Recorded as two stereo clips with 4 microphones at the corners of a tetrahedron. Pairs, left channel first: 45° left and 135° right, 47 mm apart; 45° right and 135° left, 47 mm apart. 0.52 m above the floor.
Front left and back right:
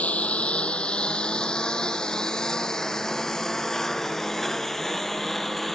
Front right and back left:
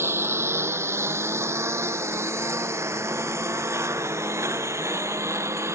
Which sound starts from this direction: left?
A lawn mower, at 0.0 s.